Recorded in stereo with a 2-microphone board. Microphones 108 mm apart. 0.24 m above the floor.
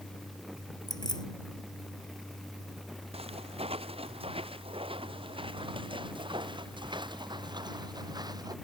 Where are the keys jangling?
40° left (ahead or behind).